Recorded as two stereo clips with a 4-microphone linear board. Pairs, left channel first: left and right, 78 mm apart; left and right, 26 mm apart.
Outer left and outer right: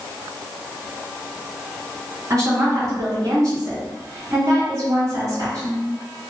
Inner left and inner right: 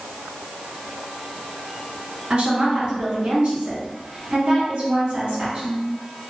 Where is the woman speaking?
50° right (ahead or behind), 2.0 m.